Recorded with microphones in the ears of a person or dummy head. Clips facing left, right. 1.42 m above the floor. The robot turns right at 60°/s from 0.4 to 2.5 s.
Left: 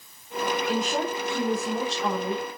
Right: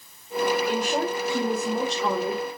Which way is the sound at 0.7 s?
165° left.